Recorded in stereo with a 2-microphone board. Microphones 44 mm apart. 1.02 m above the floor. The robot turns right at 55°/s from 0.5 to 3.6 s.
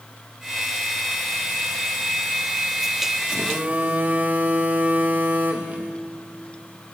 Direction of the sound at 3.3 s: 25° right (ahead or behind).